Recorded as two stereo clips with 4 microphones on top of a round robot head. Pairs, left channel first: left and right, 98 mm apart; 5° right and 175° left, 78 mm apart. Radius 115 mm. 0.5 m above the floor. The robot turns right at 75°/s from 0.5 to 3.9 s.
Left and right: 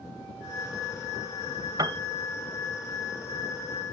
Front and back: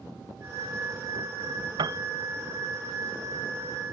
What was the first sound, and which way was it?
A piano, 145° right.